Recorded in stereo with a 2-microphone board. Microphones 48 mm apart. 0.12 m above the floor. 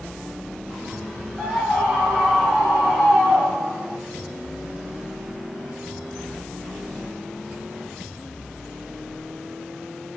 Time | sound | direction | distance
1.4 | a scream | 15° right (ahead or behind) | 4.5 m